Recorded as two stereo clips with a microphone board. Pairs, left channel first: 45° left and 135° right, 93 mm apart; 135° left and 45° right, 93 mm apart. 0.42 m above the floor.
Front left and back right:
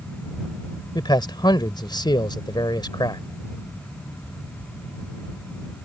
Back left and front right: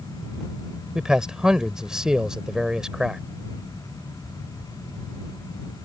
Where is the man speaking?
35° left.